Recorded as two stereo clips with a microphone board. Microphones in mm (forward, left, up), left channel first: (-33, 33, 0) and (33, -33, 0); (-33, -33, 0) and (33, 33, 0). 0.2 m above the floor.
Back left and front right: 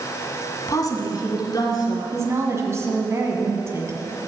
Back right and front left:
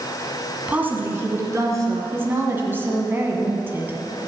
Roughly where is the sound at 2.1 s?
Ahead.